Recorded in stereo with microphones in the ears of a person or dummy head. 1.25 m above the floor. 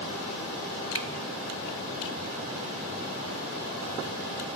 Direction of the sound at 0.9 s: 20° right (ahead or behind).